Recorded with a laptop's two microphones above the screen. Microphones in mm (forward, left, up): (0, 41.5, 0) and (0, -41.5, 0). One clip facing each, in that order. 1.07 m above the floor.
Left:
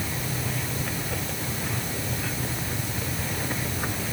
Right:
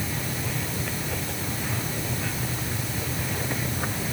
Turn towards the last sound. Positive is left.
No sound to turn to.